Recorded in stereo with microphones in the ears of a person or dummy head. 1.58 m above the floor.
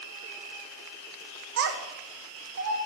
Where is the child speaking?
65° right (ahead or behind), 0.7 m; by 2.8 s 80° right, 1.4 m.